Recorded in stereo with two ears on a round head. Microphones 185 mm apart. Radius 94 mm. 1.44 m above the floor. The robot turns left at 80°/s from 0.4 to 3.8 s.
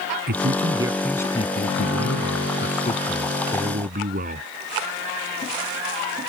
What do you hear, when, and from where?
0.3 s a man speaking: 130° right; by 4.5 s 40° right